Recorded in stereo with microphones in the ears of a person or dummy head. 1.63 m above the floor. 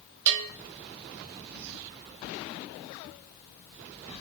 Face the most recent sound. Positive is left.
turn(degrees=-60)  # may be behind; listen again after turning